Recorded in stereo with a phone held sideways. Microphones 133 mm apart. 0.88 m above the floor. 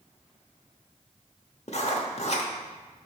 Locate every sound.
1.7 s writing: 55° left (ahead or behind), 0.8 m